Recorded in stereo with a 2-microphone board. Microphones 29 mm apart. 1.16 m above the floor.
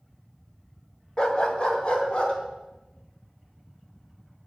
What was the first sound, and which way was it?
A dog barking, 25° left (ahead or behind).